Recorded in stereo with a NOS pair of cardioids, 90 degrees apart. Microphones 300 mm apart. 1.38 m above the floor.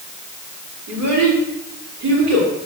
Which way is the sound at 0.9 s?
65° right.